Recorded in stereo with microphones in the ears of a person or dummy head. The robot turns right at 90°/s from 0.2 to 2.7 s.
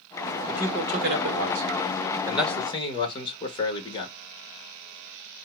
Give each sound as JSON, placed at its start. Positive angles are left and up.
{"t": 0.5, "sound": "a man speaking", "side_deg": -5, "distance_m": 2.0}